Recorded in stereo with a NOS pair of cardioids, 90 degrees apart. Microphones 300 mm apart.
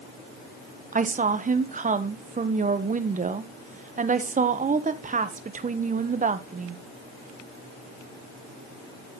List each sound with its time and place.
0.9 s a woman speaking: 25° right, 1.1 m